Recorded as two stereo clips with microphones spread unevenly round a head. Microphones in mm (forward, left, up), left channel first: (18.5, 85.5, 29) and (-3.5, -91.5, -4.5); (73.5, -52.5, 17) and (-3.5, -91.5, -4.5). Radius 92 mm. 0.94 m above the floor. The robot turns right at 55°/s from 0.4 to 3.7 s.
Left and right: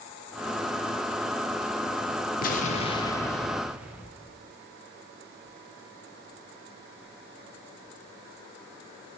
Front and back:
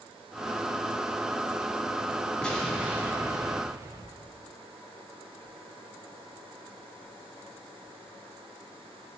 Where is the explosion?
120° left, 0.6 m; by 4.3 s 170° right, 0.6 m.